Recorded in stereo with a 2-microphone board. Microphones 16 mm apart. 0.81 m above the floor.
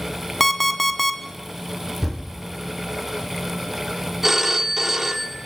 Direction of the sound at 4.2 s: 20° right (ahead or behind).